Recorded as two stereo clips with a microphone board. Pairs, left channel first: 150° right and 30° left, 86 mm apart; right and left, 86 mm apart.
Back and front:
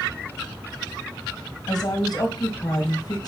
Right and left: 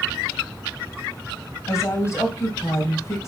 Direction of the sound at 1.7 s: 135° right.